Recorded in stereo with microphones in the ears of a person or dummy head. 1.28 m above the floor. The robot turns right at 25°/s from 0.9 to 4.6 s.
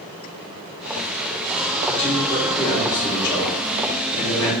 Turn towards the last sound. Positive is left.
turn(degrees=75)